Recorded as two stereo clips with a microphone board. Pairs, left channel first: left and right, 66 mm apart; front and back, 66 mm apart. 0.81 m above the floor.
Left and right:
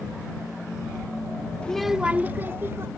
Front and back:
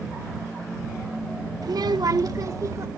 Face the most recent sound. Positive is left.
turn(degrees=-135)